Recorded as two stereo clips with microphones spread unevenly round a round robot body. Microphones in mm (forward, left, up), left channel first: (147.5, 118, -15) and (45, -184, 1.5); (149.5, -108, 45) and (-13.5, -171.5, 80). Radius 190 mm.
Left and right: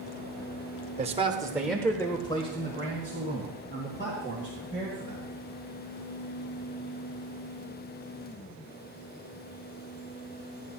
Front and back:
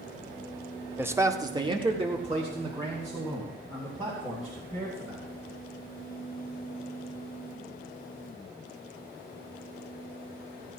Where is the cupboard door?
No cupboard door in this recording.